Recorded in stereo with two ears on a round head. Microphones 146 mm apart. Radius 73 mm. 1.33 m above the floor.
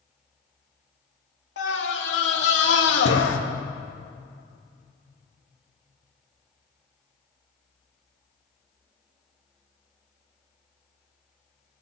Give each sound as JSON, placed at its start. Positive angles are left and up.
{"t": 1.6, "sound": "a scream", "side_deg": 75, "distance_m": 3.0}